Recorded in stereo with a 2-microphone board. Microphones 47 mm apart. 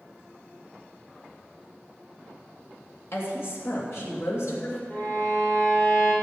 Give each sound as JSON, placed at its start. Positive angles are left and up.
{"t": 3.1, "sound": "a woman speaking", "side_deg": 55, "distance_m": 2.5}
{"t": 4.9, "sound": "a violin", "side_deg": 35, "distance_m": 3.0}